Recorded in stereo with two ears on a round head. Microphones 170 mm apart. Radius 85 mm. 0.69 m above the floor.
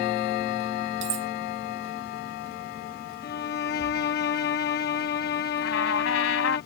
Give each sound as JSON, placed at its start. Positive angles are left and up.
{"t": 1.0, "sound": "cutlery clinking", "side_deg": -65}
{"t": 3.2, "sound": "a violin", "side_deg": 55}
{"t": 5.6, "sound": "a trumpet", "side_deg": 80}